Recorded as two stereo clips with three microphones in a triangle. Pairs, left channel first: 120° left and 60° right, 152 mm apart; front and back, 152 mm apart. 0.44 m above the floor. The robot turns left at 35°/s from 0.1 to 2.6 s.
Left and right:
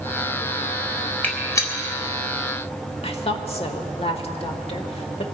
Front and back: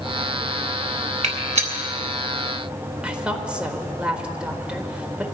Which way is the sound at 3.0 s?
100° left.